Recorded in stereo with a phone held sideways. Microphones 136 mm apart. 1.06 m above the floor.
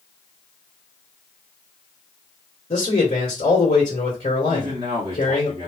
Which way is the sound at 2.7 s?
45° left (ahead or behind).